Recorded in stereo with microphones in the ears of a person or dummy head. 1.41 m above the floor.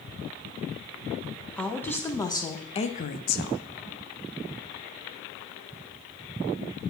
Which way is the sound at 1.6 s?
5° left (ahead or behind).